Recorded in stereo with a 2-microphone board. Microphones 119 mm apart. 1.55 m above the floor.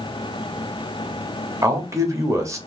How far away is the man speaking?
About 1.0 m.